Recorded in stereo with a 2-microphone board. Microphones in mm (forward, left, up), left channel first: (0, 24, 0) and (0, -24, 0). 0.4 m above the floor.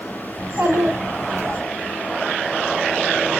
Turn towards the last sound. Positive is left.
turn(degrees=-65)  # may be behind; listen again after turning